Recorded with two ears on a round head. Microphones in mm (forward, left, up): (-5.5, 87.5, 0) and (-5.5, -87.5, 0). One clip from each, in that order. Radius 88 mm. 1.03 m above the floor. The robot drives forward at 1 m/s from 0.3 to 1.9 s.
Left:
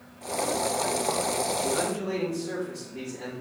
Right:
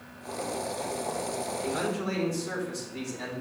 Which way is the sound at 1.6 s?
75° right (ahead or behind).